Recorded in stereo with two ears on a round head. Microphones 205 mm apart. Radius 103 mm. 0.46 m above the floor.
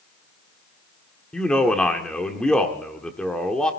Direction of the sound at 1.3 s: 5° left (ahead or behind).